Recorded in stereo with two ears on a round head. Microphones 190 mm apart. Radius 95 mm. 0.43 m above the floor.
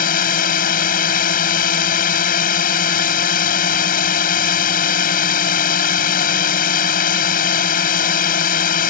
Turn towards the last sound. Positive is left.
turn(degrees=45)  # may be behind; listen again after turning